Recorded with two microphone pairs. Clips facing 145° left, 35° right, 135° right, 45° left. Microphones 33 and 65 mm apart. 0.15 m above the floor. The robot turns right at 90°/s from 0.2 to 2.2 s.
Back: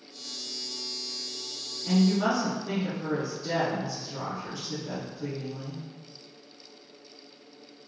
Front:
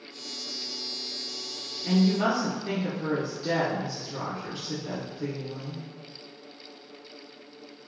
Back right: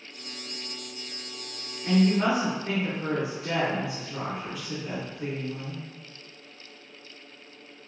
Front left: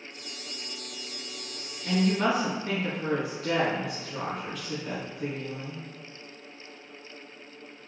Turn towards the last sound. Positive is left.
turn(degrees=-45)